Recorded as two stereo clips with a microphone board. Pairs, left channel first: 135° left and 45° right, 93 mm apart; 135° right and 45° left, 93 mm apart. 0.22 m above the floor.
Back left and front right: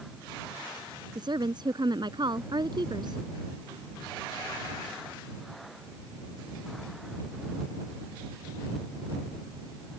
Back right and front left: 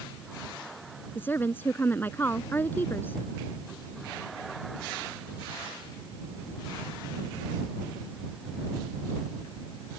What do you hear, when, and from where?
1.1 s a woman speaking: 70° right